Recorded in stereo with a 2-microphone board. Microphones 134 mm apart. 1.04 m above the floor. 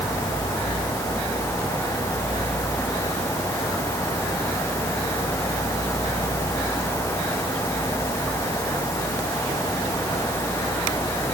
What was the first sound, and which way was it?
Only background noise.